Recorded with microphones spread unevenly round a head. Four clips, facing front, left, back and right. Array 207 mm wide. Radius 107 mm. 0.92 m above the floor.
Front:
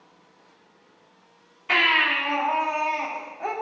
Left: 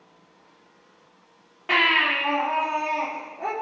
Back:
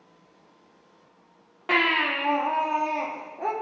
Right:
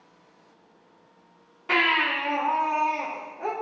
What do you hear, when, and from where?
1.7 s a baby crying: 170° left, 1.4 m